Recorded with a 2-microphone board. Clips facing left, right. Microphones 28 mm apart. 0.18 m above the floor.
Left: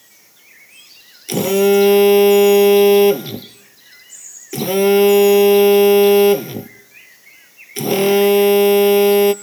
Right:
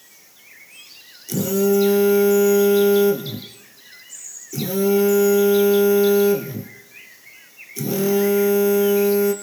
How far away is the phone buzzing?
About 0.9 m.